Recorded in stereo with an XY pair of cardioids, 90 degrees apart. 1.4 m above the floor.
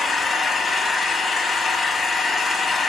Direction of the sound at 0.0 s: 40° left.